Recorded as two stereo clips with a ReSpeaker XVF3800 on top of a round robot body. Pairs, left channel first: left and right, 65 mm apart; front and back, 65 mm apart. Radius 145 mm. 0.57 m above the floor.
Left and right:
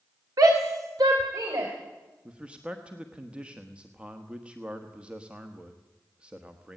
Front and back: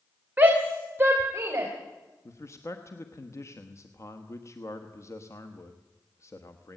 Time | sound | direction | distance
0.4 | a shout | 115° right | 1.9 m
2.2 | a man speaking | 20° right | 1.5 m